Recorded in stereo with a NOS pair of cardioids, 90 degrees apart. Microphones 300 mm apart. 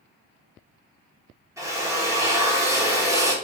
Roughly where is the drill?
Ahead.